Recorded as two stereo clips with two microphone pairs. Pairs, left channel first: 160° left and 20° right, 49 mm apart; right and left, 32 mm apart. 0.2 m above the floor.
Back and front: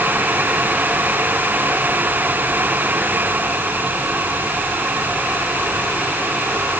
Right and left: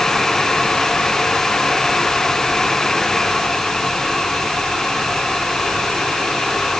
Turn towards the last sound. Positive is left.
No sound to turn to.